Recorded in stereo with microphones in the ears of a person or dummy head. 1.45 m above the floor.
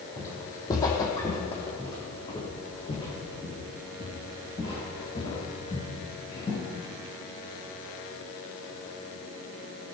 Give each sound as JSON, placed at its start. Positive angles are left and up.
{"t": 0.2, "sound": "footsteps", "side_deg": 15, "distance_m": 2.0}